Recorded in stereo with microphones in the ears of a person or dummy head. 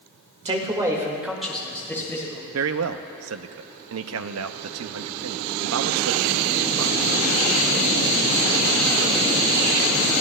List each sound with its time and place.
0.5 s a man speaking: 25° right (ahead or behind), 1.6 m; by 2.4 s 20° left (ahead or behind), 3 m
2.5 s a man speaking: 70° right (ahead or behind), 0.6 m